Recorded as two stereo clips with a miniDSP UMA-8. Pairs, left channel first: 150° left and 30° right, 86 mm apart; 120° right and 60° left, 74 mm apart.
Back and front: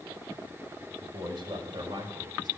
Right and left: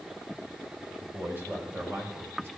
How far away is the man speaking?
About 4.5 m.